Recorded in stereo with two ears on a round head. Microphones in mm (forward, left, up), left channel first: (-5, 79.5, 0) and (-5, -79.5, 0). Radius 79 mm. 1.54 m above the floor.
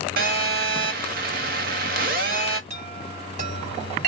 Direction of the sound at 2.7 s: 40° right (ahead or behind).